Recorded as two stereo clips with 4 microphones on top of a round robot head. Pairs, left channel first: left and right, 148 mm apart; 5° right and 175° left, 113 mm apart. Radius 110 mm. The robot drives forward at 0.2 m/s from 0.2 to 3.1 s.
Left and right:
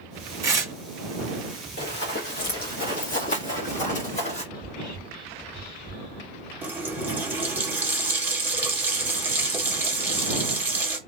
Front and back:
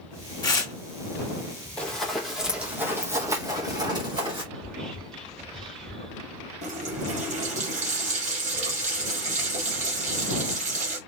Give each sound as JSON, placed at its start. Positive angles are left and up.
{"t": 0.4, "sound": "tearing paper", "azimuth_deg": -35, "distance_m": 1.2}
{"t": 1.8, "sound": "running footsteps", "azimuth_deg": 75, "distance_m": 1.6}
{"t": 4.5, "sound": "whispering", "azimuth_deg": 80, "distance_m": 2.0}
{"t": 6.6, "sound": "a running tap", "azimuth_deg": -165, "distance_m": 1.3}